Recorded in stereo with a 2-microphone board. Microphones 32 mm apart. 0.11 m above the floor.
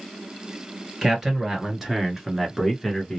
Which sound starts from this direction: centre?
A man speaking, at 1.0 s.